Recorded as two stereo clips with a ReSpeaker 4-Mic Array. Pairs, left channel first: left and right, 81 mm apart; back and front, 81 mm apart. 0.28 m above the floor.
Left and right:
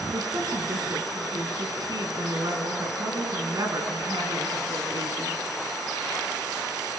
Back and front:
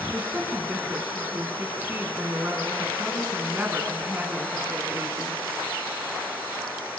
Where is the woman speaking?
60° right, 3 m.